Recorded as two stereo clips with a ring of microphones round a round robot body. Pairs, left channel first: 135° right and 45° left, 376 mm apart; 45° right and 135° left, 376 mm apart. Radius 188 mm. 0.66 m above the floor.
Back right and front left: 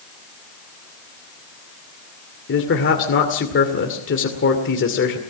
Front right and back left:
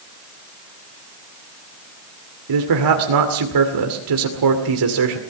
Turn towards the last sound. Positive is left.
turn(degrees=165)